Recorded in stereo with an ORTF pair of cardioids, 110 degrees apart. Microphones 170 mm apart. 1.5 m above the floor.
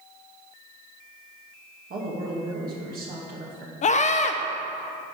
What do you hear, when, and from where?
1.9 s a woman speaking: 55° right, 2.5 m
3.8 s a scream: 40° left, 1.0 m